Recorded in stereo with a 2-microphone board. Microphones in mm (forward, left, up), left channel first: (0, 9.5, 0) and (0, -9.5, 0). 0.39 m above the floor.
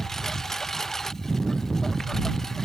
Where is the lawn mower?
25° left (ahead or behind).